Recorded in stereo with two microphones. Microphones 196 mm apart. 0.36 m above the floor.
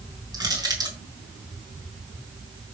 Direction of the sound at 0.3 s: 20° right (ahead or behind).